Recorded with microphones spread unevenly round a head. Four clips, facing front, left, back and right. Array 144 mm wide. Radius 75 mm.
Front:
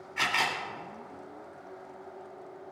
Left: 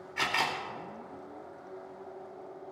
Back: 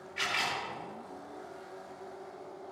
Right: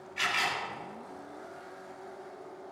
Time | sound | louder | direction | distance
0.2 | a camera shutter | left 1 dB, front 4 dB | 55° left | 2.5 m